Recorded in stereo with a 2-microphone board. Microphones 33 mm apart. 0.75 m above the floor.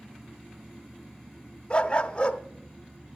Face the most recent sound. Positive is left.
turn(degrees=30)  # may be behind; listen again after turning